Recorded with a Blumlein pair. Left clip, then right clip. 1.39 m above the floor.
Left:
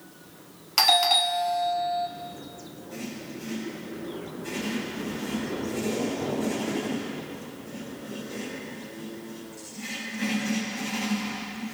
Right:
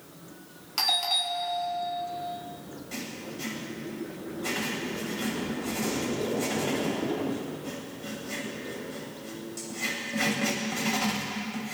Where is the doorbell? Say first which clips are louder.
Left 6 dB; 25° left, 0.9 m.